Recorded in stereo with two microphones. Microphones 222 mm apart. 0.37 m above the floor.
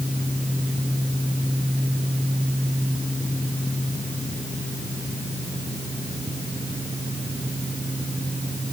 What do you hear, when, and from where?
Only background noise.